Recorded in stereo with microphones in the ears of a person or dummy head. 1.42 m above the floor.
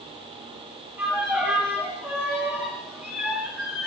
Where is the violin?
20° right (ahead or behind), 4 m.